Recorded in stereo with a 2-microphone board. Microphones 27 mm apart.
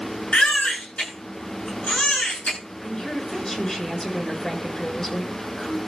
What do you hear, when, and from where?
0.3 s a baby crying: 55° left (ahead or behind), 9 m
2.8 s a woman speaking: 25° left (ahead or behind), 6.5 m